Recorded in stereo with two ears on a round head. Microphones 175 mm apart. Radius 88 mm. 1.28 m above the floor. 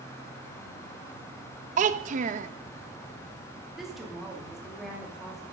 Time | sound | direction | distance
1.8 | a child speaking | 40° right (ahead or behind) | 0.6 m
3.8 | a woman speaking | centre (ahead or behind) | 2.5 m